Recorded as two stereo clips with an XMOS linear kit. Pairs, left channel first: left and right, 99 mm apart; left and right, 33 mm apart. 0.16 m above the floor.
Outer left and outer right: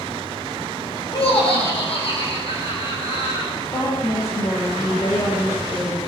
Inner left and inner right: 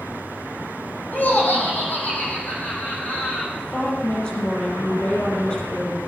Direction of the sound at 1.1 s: 70° left (ahead or behind).